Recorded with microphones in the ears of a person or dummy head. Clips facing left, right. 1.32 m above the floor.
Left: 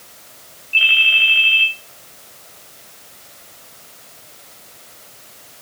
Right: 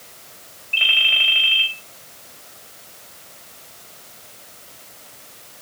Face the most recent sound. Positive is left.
turn(degrees=-30)  # may be behind; listen again after turning